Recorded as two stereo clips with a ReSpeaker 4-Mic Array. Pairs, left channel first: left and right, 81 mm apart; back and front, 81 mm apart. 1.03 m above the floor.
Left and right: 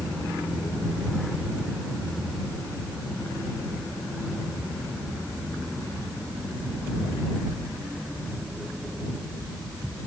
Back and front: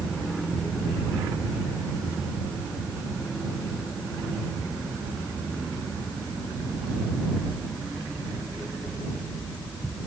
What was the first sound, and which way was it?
Only background noise.